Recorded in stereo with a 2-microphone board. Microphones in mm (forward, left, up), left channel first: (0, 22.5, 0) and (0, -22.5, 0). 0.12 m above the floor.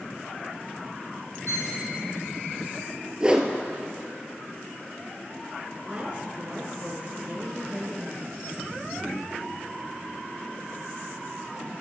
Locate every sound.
1.5 s a violin: 75° left (ahead or behind), 1.1 m
3.2 s a whoosh: 20° right (ahead or behind), 0.7 m
5.8 s a woman speaking: 30° right (ahead or behind), 1.4 m